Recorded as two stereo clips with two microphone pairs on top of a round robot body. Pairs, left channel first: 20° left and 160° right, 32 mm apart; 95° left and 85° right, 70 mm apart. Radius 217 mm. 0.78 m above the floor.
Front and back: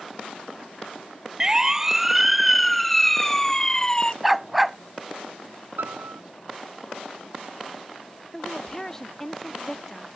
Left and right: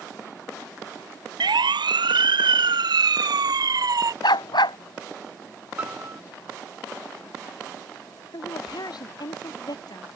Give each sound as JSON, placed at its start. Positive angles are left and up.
{"t": 1.4, "sound": "a siren", "azimuth_deg": -90}
{"t": 4.2, "sound": "a dog barking", "azimuth_deg": 115}
{"t": 5.8, "sound": "a piano", "azimuth_deg": -150}
{"t": 8.3, "sound": "a woman speaking", "azimuth_deg": 95}